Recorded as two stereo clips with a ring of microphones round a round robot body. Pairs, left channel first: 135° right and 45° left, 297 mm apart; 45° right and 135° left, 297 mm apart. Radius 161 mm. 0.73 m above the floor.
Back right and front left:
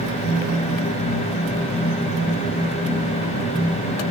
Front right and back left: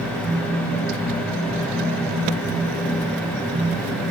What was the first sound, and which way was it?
Only background noise.